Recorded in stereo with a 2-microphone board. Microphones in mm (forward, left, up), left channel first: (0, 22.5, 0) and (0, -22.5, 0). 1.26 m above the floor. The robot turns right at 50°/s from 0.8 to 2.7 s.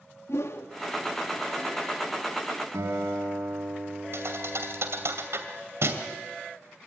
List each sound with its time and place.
0.3 s a whoosh: 75° left (ahead or behind), 2 m
2.7 s a guitar: 85° right, 6 m
4.1 s a thud: 65° right (ahead or behind), 2.5 m